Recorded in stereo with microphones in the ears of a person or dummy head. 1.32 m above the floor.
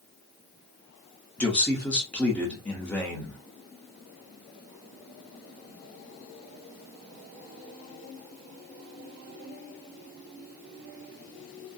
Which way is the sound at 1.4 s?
5° left (ahead or behind).